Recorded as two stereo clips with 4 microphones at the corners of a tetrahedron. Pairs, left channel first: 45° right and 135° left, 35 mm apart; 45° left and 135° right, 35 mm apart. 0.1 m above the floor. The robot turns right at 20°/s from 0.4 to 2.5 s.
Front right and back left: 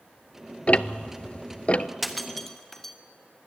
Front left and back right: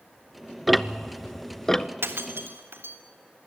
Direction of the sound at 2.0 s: 140° right.